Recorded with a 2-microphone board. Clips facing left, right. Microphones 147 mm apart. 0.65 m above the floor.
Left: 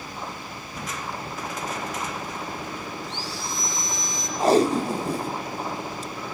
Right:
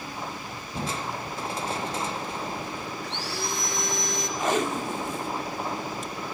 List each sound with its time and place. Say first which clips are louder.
0.8 s crushing: right 2 dB; 30° right (ahead or behind), 0.8 m
3.0 s sawing: right 1 dB; 65° right (ahead or behind), 4 m
4.4 s tape being pulled: left 8 dB; 35° left (ahead or behind), 0.7 m